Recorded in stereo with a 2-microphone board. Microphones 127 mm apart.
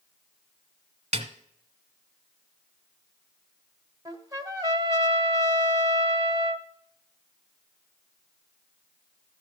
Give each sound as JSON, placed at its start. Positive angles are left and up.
{"t": 1.1, "sound": "a snare drum", "side_deg": -55, "distance_m": 1.1}
{"t": 4.0, "sound": "a trumpet", "side_deg": -30, "distance_m": 1.1}